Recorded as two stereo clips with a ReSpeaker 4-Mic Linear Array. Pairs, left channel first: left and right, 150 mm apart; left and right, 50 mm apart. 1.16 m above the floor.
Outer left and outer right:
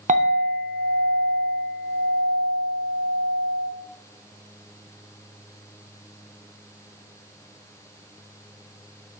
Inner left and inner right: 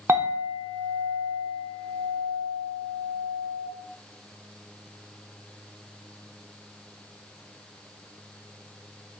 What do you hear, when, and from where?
0.1 s a clink: 60° right (ahead or behind), 0.6 m